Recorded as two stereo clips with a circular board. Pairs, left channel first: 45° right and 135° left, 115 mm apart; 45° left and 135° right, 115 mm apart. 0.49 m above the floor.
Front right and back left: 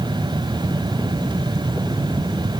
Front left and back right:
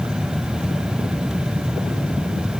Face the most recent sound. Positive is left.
No sound to turn to.